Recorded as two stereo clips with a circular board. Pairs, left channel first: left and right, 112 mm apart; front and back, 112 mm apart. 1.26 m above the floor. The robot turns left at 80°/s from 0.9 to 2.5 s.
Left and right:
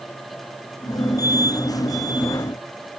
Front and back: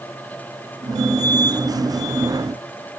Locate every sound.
Only background noise.